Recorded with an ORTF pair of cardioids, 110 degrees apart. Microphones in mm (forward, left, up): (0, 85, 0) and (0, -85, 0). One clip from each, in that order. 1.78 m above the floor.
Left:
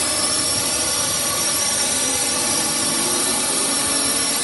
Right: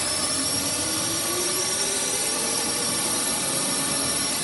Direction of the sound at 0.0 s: 30° left.